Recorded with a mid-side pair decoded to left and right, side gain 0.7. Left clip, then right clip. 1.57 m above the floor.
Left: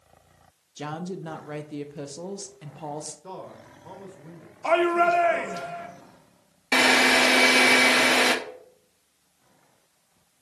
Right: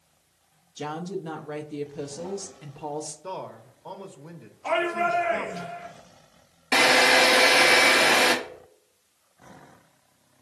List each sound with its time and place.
0.8 s a woman speaking: 10° left, 0.7 m
3.2 s a man speaking: 25° right, 0.9 m
4.6 s a shout: 40° left, 1.3 m
6.7 s a drill: 5° left, 1.0 m